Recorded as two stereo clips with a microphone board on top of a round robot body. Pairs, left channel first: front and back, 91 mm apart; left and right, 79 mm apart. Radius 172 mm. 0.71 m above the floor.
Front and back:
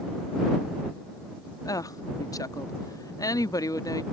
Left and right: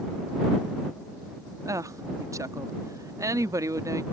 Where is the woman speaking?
45° right.